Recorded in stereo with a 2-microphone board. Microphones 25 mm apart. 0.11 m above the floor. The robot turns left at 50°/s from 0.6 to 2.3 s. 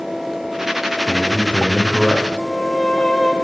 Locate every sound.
1.1 s a man speaking: 15° left, 9.5 m; by 2.3 s 45° right, 9.5 m
2.4 s a violin: 15° left (ahead or behind), 5.5 m